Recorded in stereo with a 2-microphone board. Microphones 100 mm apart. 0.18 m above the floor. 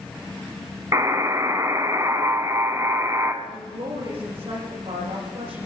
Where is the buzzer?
30° right (ahead or behind), 1.0 m.